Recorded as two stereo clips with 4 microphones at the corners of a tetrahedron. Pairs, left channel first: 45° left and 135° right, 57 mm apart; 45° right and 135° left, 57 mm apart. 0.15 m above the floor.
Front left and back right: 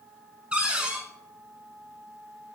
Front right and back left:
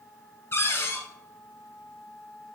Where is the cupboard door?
70° right, 0.8 m.